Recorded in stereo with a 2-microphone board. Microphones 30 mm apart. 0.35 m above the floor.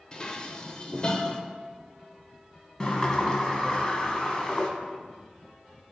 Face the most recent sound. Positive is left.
turn(degrees=25)  # may be behind; listen again after turning